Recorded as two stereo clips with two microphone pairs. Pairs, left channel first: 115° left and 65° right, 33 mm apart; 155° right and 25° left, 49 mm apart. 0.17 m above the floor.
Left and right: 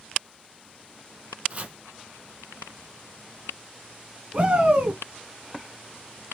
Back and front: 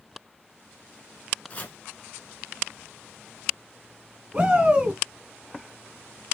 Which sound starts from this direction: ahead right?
A shout, at 4.3 s.